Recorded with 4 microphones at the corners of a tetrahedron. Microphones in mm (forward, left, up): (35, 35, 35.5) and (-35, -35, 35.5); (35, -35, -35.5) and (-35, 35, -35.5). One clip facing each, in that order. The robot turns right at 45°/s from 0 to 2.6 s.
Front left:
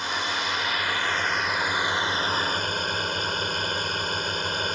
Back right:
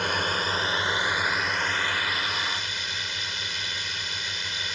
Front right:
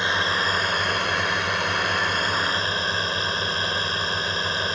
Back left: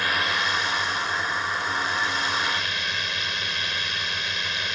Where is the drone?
110° right; by 4.8 s 5° left.